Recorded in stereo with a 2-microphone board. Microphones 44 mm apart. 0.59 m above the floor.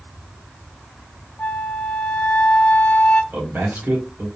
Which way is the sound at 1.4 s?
45° left (ahead or behind).